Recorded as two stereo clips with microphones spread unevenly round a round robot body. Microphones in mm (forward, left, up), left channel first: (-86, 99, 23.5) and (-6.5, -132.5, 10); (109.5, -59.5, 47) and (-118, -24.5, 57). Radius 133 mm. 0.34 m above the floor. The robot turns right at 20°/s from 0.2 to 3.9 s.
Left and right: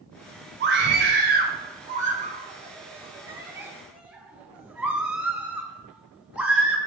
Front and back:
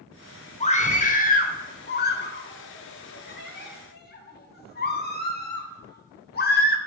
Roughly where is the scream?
Ahead right.